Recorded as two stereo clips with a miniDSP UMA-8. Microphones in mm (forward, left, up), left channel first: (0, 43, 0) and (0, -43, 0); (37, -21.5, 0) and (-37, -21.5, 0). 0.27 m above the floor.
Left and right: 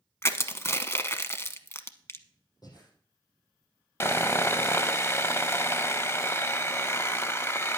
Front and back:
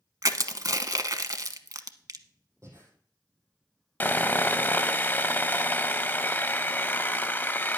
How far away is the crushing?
About 0.8 m.